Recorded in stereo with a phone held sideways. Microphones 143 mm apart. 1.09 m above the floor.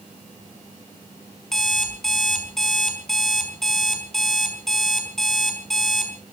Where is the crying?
I don't hear crying.